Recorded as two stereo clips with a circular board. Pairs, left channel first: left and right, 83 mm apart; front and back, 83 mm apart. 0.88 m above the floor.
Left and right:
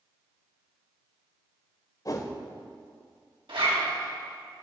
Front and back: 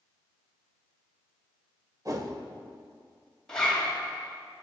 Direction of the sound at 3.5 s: 85° right.